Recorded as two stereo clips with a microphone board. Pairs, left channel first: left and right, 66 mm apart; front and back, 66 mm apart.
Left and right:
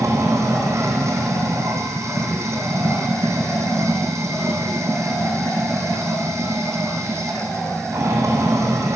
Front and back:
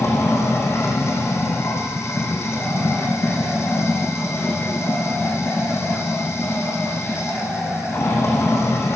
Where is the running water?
45° right, 3.5 m.